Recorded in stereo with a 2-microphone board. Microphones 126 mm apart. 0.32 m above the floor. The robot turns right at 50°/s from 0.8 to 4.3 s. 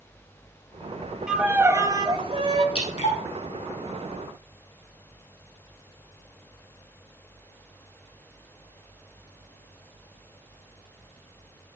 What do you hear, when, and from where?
1.3 s a violin: 175° right, 1.0 m; by 2.6 s 105° right, 1.0 m
2.8 s dripping: 50° left (ahead or behind), 4 m; by 3.2 s 70° left (ahead or behind), 4 m